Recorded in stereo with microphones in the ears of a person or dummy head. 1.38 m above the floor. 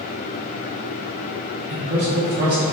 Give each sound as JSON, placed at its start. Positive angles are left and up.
{"t": 1.7, "sound": "a man speaking", "side_deg": -50, "distance_m": 0.7}